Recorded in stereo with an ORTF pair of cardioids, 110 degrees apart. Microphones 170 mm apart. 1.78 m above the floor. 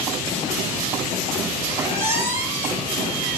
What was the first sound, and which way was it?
A squeak, 15° right.